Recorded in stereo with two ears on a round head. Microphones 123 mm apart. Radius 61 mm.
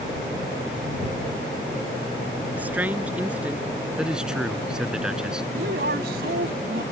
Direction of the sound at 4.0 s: 5° right (ahead or behind).